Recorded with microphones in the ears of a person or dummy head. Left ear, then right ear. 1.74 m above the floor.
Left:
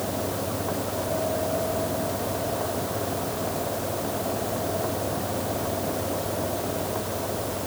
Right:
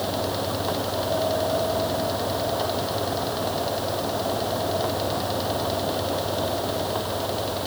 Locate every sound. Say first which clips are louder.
0.0 s a fan: right 3 dB; 80° right